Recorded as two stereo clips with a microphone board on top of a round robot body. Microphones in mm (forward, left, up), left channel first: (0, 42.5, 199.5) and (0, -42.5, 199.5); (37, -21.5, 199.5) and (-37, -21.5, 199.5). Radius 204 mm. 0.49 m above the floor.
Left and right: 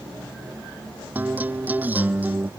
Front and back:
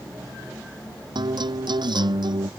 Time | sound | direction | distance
1.1 | a guitar | 160° right | ?